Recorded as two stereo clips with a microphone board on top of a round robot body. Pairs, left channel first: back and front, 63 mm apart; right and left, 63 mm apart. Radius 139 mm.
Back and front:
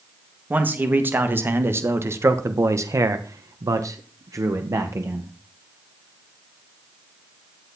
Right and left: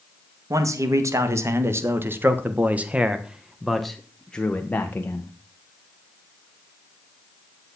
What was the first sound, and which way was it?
A man speaking, 60° left.